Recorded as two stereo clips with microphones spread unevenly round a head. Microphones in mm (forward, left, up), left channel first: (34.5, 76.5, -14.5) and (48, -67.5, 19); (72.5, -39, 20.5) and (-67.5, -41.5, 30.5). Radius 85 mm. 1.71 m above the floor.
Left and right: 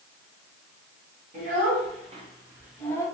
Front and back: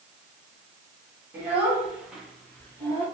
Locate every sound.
1.3 s a child speaking: 105° right, 1.9 m; by 3.0 s 35° left, 0.8 m